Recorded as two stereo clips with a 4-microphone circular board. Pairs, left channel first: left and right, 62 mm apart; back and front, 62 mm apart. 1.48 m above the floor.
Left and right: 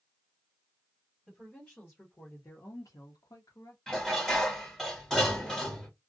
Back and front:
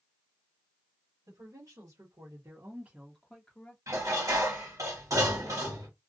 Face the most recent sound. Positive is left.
turn(degrees=10)